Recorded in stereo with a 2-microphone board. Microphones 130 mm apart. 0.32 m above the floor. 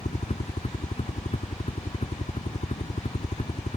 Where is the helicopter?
60° left (ahead or behind).